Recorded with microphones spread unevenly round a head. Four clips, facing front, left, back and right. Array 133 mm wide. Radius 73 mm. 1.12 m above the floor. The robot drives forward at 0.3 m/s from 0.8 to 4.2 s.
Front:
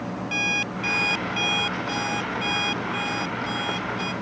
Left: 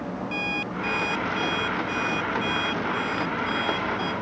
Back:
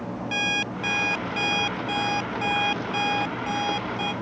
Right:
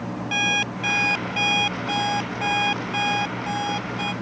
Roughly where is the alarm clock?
Behind right.